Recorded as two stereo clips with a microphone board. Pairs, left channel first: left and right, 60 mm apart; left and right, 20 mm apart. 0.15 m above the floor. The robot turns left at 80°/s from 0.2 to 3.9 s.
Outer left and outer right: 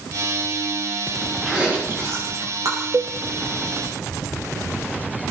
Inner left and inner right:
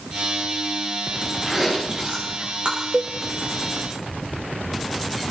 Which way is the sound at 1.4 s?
10° right (ahead or behind).